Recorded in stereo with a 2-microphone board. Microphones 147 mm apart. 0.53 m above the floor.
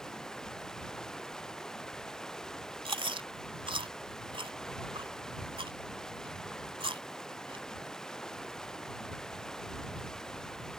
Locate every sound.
0.0 s running water: 5° left (ahead or behind)
2.9 s chewing: 35° right (ahead or behind)